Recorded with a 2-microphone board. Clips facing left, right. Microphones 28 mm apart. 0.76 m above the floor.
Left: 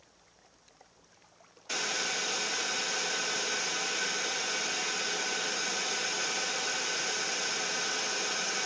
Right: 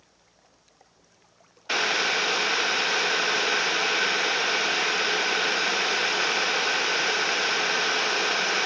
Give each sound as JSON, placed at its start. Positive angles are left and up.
{"t": 1.7, "sound": "boiling", "side_deg": -45, "distance_m": 0.5}